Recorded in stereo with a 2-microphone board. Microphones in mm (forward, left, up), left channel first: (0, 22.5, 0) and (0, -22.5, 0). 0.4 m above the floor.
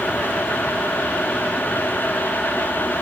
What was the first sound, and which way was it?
Only background noise.